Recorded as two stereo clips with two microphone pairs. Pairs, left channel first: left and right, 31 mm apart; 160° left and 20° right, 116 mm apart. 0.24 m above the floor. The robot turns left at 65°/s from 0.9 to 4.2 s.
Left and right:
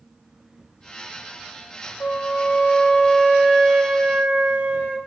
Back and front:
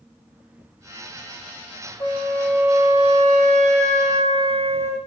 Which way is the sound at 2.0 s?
100° left.